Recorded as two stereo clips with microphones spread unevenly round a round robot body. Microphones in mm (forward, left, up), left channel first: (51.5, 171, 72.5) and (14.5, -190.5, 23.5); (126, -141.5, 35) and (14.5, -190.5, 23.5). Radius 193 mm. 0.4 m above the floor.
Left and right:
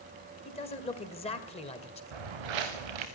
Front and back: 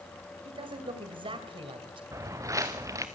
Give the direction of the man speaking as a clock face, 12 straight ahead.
7 o'clock.